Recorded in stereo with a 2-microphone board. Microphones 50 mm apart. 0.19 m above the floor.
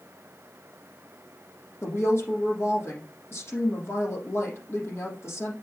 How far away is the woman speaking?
About 5 m.